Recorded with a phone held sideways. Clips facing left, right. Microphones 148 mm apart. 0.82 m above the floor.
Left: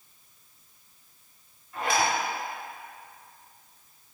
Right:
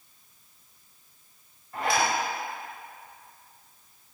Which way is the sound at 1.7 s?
40° right (ahead or behind).